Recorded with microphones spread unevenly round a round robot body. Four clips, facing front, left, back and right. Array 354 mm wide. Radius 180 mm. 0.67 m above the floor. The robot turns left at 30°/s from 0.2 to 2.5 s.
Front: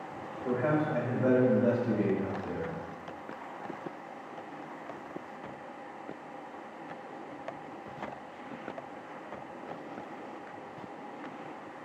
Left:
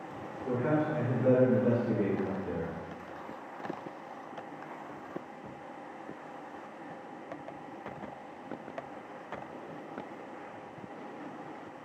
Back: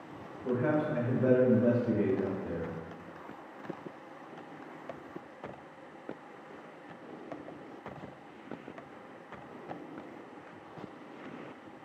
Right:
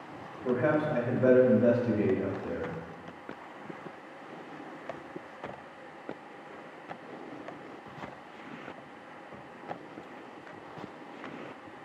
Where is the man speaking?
70° right, 1.0 m; by 2.7 s 130° right, 1.0 m.